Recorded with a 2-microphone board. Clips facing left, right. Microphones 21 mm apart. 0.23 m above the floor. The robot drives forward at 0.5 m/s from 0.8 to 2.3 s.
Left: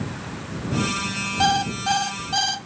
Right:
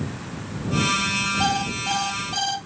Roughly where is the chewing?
No chewing in this recording.